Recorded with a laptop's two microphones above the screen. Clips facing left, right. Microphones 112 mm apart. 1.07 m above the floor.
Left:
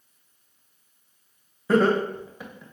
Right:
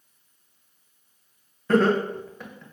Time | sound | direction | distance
1.7 | laughter | 10° left (ahead or behind) | 0.8 m